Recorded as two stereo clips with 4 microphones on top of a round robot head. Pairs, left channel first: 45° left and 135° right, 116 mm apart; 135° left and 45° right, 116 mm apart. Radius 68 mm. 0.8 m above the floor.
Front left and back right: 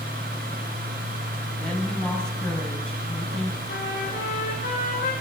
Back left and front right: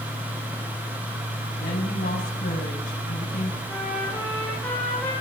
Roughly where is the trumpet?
Ahead left.